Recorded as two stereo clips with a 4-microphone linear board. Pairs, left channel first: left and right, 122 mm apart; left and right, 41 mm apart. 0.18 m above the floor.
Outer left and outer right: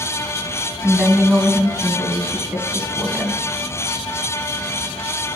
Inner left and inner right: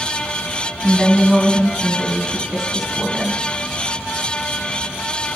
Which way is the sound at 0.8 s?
10° right (ahead or behind).